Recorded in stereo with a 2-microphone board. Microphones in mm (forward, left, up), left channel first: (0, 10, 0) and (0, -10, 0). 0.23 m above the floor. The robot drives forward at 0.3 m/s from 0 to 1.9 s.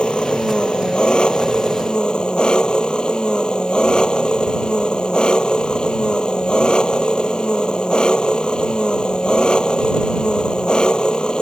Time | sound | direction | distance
0.0 | an engine running | 55° left (ahead or behind) | ?